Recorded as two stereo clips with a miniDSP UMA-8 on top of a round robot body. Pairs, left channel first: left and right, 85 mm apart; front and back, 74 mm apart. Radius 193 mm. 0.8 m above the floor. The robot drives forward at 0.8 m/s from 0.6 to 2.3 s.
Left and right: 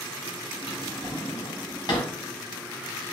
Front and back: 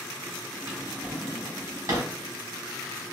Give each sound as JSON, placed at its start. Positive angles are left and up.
{"t": 0.7, "sound": "a drawer", "azimuth_deg": 105, "distance_m": 1.9}